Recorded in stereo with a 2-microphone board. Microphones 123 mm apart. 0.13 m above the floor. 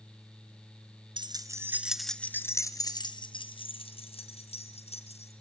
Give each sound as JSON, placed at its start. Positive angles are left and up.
{"t": 1.2, "sound": "keys jangling", "side_deg": -40, "distance_m": 1.1}